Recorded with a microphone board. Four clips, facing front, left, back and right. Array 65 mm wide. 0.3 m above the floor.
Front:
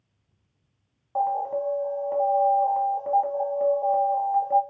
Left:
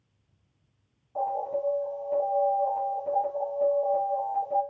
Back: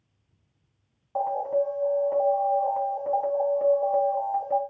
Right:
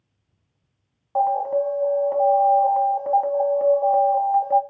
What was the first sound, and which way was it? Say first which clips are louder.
An alarm: right 9 dB, even; 85° right.